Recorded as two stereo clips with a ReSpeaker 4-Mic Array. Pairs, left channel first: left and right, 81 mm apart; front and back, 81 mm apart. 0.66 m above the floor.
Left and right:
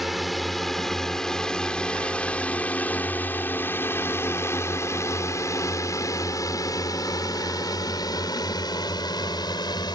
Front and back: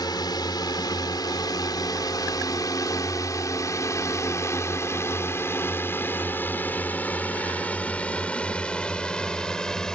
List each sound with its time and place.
0.0 s a drone: straight ahead; by 10.0 s 80° left